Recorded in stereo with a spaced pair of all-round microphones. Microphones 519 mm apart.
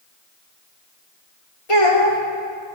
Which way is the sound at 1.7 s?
70° left (ahead or behind).